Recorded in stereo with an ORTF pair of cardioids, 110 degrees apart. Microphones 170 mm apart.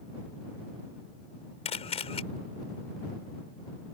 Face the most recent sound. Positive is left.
turn(degrees=35)